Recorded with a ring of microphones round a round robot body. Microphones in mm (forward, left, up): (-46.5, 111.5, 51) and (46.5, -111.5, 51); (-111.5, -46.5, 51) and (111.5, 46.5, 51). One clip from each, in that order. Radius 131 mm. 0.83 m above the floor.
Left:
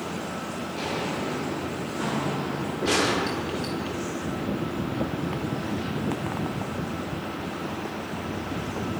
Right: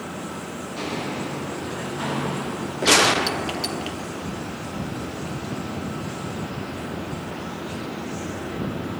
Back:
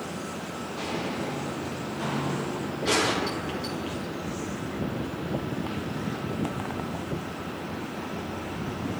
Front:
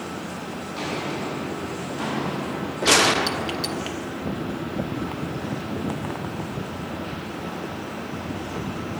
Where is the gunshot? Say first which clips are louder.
Right 7 dB, front 7 dB; 20° right, 1.4 m.